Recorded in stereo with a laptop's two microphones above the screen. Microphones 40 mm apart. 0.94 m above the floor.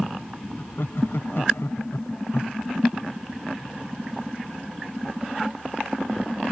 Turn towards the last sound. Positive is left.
turn(degrees=80)